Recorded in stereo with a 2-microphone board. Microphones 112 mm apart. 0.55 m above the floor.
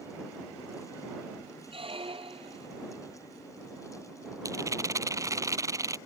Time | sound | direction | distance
1.7 | a squeak | 55° right (ahead or behind) | ?
4.5 | a rattle | 30° right (ahead or behind) | ?